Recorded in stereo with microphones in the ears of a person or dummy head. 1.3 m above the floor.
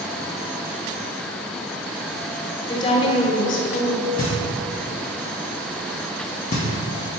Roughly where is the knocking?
Left.